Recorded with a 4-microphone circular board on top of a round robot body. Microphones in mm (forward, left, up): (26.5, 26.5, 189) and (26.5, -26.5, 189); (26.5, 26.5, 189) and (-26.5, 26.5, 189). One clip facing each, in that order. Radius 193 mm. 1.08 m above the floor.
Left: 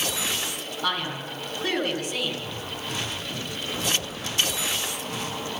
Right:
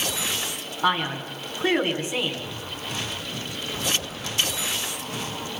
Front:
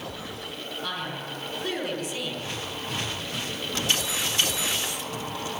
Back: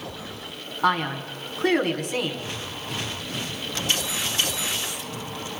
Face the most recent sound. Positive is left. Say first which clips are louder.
# right 5 dB, back 12 dB
turn(degrees=-155)